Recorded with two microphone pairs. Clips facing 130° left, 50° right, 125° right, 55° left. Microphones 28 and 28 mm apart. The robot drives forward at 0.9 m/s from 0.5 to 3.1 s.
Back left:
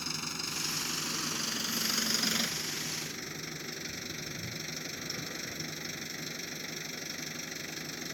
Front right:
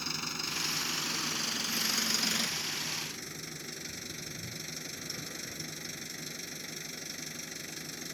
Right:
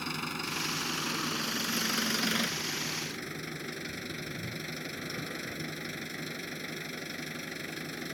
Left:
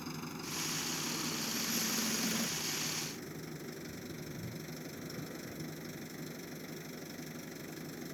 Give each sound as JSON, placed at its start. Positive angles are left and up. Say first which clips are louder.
{"t": 0.0, "sound": "an engine running", "louder": "front right 1 dB, right 8 dB", "azimuth_deg": -135}